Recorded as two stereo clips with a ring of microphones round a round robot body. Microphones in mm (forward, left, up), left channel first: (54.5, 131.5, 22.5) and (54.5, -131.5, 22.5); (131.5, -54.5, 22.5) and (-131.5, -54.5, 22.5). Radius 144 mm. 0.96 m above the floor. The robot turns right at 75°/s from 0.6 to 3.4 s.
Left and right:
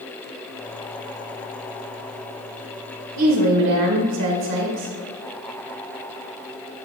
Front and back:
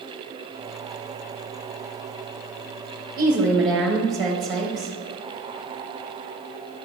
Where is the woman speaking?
105° right, 1.4 m; by 4.9 s 90° right, 1.4 m.